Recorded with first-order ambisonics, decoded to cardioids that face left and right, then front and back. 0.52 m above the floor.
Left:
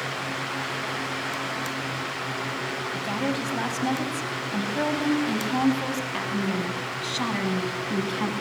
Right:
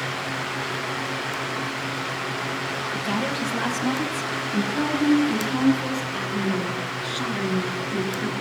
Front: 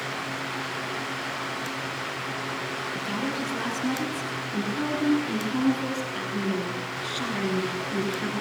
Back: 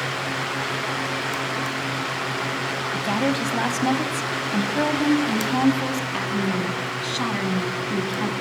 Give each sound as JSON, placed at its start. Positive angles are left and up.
{"t": 2.9, "sound": "a woman speaking", "azimuth_deg": 180, "distance_m": 4.5}